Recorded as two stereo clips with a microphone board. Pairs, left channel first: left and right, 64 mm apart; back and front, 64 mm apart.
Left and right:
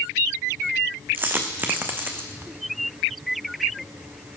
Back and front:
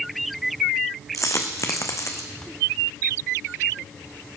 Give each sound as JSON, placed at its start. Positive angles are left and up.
{"t": 1.1, "sound": "a dropped coin", "azimuth_deg": -145, "distance_m": 1.4}